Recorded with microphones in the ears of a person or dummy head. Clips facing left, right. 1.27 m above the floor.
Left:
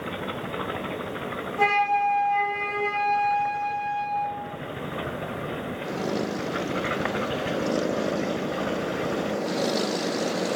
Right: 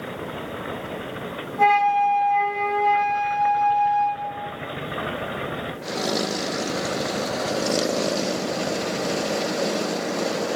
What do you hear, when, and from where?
1.6 s a flute: 40° left (ahead or behind), 1.2 m